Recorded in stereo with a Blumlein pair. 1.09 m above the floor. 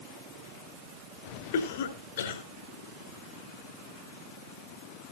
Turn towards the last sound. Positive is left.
turn(degrees=60)